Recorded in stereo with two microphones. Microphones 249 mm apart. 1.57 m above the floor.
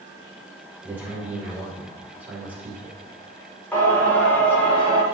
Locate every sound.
0.8 s a man speaking: 5° right (ahead or behind), 2.5 m
3.7 s singing: 5° left (ahead or behind), 1.6 m